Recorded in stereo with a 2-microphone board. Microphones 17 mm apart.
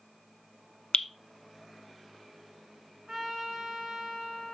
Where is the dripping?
80° left, 0.8 m.